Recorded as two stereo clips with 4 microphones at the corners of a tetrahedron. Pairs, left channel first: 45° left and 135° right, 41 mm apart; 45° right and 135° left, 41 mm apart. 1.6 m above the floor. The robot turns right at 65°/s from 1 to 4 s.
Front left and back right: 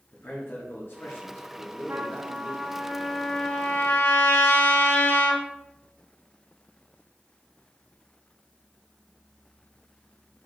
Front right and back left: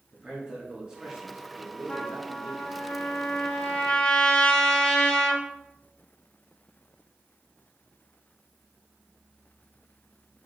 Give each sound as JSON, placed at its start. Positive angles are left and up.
{"t": 0.1, "sound": "a man speaking", "azimuth_deg": 65, "distance_m": 0.9}
{"t": 1.9, "sound": "a trumpet", "azimuth_deg": -115, "distance_m": 0.5}